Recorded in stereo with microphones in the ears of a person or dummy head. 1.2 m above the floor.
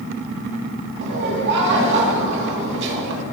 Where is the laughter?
65° right (ahead or behind), 2.5 m.